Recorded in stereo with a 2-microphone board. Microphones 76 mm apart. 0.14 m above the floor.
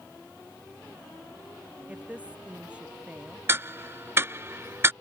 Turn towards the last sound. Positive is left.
turn(degrees=-30)  # may be behind; listen again after turning